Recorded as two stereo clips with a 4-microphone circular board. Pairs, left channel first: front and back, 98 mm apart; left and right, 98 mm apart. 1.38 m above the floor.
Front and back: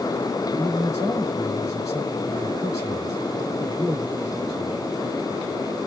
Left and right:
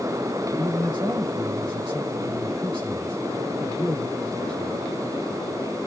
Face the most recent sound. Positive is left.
turn(degrees=-55)